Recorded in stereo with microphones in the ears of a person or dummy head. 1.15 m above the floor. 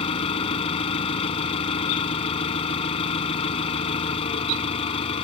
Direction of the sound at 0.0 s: 30° left (ahead or behind).